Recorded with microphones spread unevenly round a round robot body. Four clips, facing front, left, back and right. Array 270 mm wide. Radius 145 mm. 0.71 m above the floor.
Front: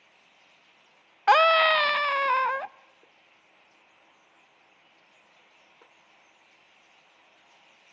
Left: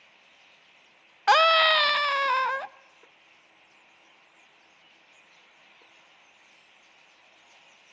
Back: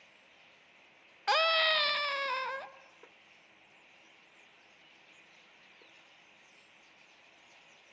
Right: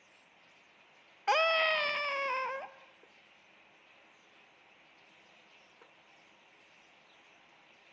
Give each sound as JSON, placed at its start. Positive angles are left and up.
{"t": 1.3, "sound": "a scream", "azimuth_deg": 20, "distance_m": 0.6}